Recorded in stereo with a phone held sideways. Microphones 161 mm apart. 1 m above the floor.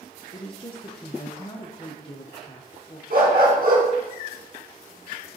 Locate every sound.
0.3 s a woman speaking: 35° left (ahead or behind), 0.8 m
3.1 s a dog barking: 65° right (ahead or behind), 3 m